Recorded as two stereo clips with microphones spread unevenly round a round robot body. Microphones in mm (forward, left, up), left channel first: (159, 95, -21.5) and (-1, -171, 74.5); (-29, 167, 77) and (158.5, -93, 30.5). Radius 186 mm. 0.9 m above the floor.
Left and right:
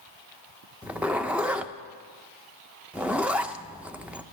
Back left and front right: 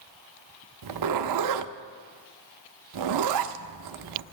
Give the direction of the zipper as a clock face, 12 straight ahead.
2 o'clock.